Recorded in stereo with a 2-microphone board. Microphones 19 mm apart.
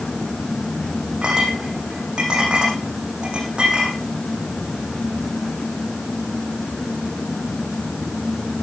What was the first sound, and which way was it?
A clink, 55° right (ahead or behind).